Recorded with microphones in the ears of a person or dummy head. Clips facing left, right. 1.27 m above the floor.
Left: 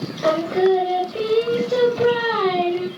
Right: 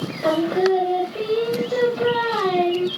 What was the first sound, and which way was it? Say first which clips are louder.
Singing: left 1 dB; 25° left (ahead or behind).